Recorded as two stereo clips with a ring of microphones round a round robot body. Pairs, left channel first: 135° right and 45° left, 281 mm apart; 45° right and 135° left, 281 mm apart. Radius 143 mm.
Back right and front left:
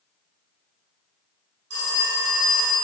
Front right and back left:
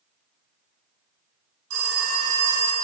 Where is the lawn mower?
I don't hear a lawn mower.